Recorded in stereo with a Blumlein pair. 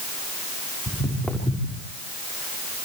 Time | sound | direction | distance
0.9 | footsteps | 5° left | 6.5 m